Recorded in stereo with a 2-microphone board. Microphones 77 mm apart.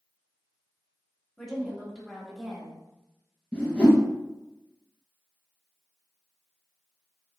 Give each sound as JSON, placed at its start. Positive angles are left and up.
{"t": 1.4, "sound": "a woman speaking", "side_deg": 5, "distance_m": 1.0}
{"t": 3.5, "sound": "a whoosh", "side_deg": 10, "distance_m": 1.3}